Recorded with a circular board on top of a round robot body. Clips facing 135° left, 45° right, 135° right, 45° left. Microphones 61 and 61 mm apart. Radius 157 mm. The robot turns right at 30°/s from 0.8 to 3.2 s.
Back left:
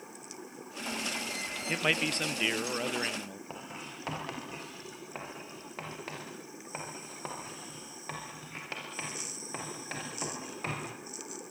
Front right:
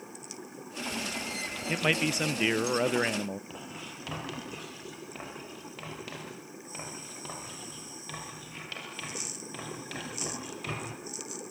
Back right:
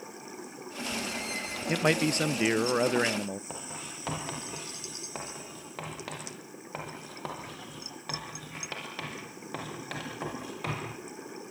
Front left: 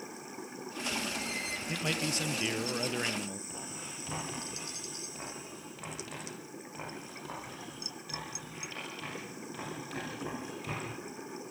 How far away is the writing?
About 7.5 m.